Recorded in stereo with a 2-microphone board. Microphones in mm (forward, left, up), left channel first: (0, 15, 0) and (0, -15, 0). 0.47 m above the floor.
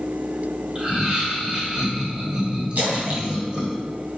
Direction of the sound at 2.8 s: 75° right (ahead or behind).